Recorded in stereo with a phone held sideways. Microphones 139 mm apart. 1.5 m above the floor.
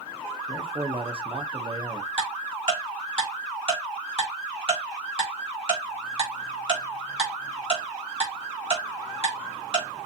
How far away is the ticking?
About 3.5 m.